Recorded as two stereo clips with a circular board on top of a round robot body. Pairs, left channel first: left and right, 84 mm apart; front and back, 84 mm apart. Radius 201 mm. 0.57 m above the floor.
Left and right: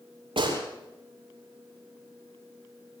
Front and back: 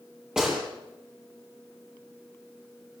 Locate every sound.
0.4 s a gunshot: 95° right, 8 m